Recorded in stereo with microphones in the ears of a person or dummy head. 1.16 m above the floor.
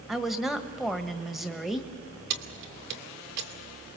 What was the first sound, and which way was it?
A woman speaking, centre (ahead or behind).